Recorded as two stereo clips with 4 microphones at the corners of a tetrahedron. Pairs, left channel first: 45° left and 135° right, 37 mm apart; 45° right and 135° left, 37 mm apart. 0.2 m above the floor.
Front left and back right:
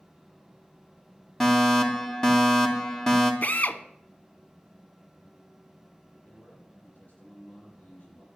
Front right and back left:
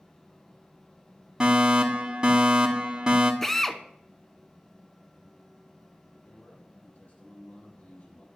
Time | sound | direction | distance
1.4 | a fire alarm | 115° left | 2.5 m
3.4 | a drill | 35° left | 0.9 m
6.2 | a man speaking | 5° right | 6 m